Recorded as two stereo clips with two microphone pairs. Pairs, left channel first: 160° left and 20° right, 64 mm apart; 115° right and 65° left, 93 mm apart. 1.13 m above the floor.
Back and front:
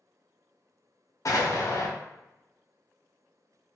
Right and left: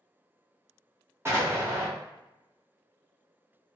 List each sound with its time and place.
1.2 s an explosion: 125° left, 0.7 m